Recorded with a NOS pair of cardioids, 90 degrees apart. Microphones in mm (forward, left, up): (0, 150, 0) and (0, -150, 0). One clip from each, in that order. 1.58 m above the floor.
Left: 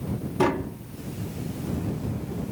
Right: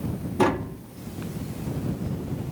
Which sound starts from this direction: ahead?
Tapping, at 0.4 s.